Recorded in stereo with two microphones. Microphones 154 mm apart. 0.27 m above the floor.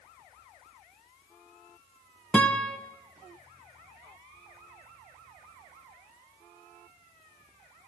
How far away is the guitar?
About 1.3 m.